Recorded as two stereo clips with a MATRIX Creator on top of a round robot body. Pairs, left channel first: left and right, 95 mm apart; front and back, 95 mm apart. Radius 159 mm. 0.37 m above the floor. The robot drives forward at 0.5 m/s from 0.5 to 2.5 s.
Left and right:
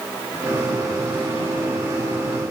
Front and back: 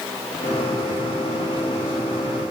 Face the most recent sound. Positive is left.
No sound to turn to.